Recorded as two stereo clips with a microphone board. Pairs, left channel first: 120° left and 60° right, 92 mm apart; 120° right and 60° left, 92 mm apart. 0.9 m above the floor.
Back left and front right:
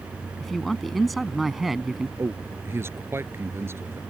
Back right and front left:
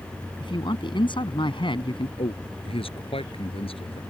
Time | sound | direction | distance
0.4 | a man speaking | 150° right | ?
2.2 | a man speaking | 120° right | ?